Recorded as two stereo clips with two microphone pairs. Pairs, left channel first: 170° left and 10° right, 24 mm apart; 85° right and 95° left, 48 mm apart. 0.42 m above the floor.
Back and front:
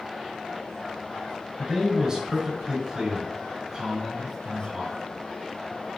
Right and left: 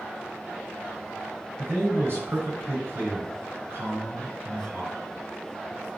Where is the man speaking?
60° left, 5 m.